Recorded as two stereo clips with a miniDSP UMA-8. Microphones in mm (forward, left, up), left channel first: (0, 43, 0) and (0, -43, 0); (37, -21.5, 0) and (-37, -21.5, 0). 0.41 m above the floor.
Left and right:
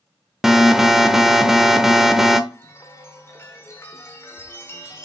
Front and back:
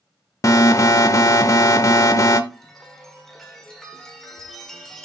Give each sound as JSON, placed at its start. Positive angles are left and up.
{"t": 0.4, "sound": "an alarm", "azimuth_deg": -5, "distance_m": 0.7}
{"t": 2.5, "sound": "a chime", "azimuth_deg": 80, "distance_m": 1.4}